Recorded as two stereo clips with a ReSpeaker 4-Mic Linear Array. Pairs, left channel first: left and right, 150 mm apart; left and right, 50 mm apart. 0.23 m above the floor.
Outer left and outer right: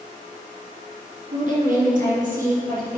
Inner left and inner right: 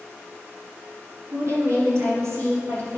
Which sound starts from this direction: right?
A woman speaking, at 1.3 s.